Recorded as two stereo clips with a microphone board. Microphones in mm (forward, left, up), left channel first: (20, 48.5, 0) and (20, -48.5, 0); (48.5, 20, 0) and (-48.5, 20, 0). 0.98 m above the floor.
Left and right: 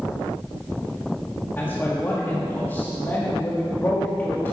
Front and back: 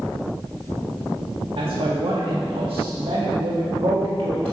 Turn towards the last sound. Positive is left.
turn(degrees=160)